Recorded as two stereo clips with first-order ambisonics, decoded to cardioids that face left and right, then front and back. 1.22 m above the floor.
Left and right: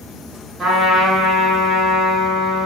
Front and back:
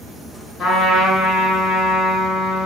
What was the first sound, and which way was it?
A trumpet, 15° right.